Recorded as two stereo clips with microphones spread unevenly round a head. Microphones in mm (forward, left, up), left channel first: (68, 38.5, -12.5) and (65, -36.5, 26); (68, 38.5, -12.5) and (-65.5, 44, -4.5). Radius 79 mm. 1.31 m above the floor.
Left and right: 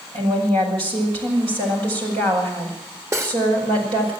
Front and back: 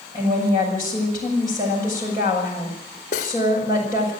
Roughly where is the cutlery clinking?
Ahead right.